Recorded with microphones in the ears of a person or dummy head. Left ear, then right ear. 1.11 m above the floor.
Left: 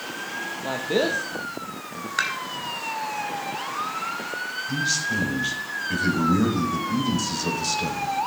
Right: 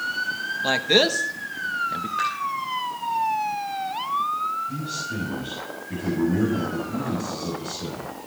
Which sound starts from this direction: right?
A man speaking, at 0.6 s.